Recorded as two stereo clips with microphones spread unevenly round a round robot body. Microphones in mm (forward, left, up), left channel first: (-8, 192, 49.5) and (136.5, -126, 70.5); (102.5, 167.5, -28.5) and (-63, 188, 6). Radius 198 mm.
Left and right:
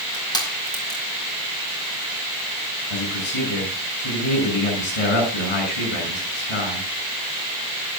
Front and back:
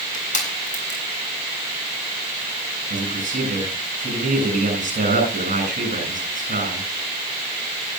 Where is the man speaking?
140° left, 8 m.